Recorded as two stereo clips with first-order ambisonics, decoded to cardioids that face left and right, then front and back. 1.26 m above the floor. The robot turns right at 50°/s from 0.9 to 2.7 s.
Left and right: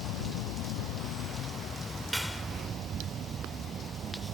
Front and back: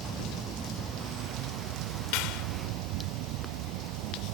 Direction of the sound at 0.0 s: 115° left.